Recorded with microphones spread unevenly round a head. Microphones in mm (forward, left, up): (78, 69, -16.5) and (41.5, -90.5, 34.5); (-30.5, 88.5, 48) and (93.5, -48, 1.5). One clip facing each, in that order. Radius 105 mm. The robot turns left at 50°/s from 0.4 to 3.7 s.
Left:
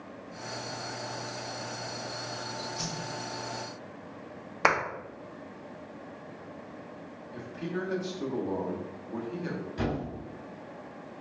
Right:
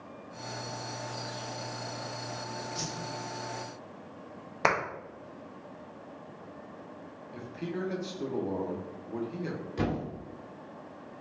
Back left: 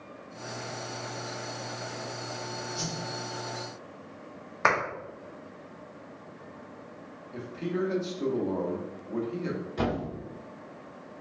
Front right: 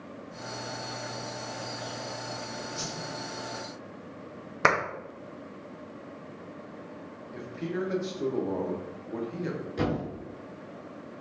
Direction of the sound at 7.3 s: Straight ahead.